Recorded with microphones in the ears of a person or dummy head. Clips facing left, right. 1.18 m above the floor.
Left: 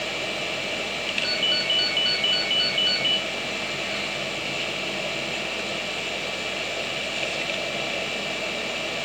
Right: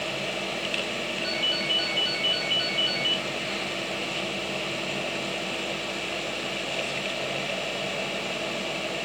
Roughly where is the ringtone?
Centre.